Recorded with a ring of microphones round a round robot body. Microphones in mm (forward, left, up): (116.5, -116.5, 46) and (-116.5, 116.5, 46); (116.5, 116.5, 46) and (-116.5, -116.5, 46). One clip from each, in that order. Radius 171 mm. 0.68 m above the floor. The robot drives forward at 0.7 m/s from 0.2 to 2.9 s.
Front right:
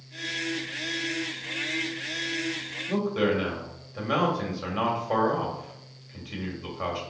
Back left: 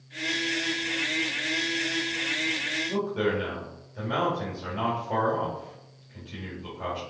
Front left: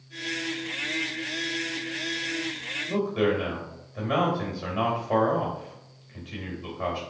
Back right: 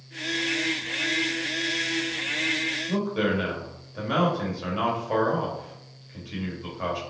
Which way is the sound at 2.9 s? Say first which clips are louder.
Front right 1 dB, front left 1 dB; 65° right.